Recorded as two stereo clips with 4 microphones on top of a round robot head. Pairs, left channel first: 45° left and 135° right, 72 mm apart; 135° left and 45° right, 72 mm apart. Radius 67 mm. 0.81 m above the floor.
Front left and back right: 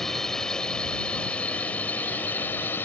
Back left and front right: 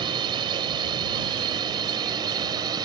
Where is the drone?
40° right; by 2.9 s 20° right.